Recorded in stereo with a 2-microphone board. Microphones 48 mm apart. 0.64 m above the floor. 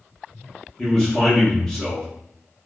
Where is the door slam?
No door slam in this recording.